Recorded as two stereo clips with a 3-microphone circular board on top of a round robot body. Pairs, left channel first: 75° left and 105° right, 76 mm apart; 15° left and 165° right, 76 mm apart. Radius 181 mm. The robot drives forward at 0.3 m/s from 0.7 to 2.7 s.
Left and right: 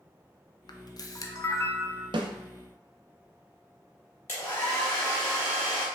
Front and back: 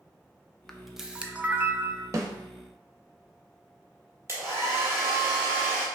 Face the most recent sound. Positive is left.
turn(degrees=135)